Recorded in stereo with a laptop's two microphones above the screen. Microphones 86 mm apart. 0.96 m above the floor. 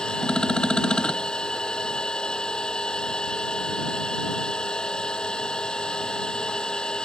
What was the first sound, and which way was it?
A machine running, 10° left (ahead or behind).